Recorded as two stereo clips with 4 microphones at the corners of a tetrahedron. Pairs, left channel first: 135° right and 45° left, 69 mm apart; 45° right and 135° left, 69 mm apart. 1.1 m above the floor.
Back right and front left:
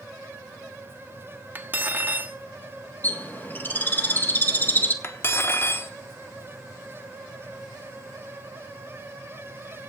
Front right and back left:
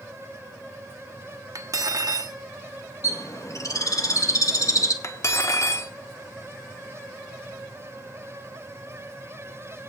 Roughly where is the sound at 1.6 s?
Left.